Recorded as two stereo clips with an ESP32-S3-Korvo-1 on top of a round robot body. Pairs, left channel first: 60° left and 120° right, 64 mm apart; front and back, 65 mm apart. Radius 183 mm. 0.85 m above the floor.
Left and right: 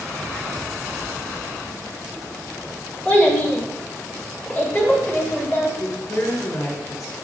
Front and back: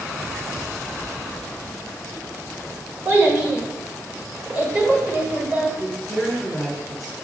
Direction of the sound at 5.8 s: 95° left.